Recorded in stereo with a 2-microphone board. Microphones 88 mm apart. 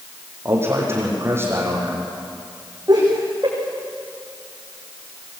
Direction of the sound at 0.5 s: 30° right (ahead or behind).